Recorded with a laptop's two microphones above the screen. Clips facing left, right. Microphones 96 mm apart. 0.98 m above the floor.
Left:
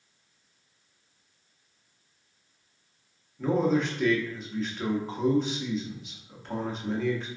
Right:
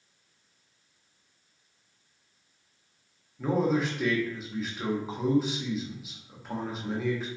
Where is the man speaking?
5° right (ahead or behind), 0.7 m.